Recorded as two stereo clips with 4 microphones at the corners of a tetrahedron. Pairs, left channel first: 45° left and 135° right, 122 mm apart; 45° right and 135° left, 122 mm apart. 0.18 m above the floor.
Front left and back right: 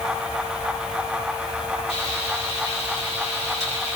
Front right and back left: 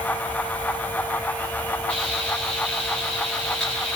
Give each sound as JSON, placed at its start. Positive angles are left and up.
{"t": 1.9, "sound": "frying", "azimuth_deg": 35, "distance_m": 9.0}